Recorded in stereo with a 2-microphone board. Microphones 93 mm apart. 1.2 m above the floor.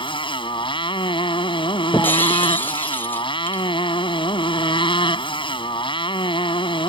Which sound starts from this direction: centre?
Breaking glass, at 1.9 s.